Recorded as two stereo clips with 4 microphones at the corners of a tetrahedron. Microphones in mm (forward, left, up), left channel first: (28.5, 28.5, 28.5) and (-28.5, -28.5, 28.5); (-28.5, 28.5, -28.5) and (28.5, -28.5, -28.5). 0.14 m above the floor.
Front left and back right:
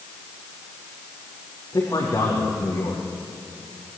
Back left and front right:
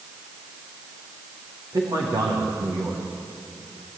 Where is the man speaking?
5° right, 5.5 m.